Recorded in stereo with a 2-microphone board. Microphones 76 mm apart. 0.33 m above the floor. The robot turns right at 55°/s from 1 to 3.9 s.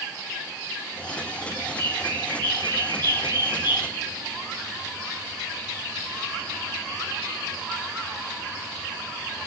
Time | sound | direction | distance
1.6 | a bird | 40° right (ahead or behind) | 9 m